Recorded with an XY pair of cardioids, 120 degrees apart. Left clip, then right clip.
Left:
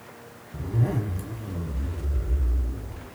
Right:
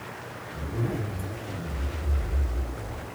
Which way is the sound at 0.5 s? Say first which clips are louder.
Left 2 dB; 70° left.